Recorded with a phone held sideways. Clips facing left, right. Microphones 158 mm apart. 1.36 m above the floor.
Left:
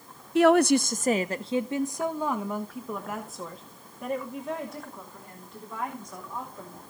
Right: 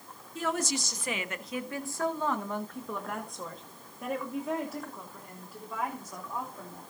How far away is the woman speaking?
About 0.6 m.